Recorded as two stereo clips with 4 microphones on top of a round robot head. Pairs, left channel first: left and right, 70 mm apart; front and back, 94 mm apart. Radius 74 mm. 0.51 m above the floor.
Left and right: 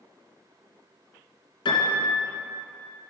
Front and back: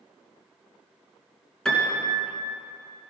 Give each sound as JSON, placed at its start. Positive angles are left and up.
{"t": 1.6, "sound": "a piano", "azimuth_deg": 80, "distance_m": 3.0}